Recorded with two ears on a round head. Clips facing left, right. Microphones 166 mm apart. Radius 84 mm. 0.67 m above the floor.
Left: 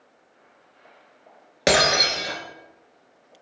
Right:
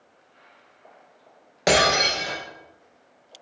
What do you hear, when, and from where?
1.7 s breaking glass: 25° left (ahead or behind), 1.1 m